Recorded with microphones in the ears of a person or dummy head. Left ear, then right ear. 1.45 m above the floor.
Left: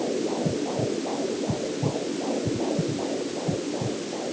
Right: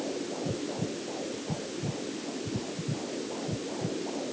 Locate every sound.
Only background noise.